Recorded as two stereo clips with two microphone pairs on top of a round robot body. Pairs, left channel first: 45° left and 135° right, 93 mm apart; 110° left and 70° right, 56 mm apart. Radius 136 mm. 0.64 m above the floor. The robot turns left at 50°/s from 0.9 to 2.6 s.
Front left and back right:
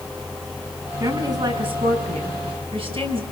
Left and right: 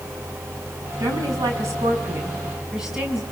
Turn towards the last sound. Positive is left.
turn(degrees=-150)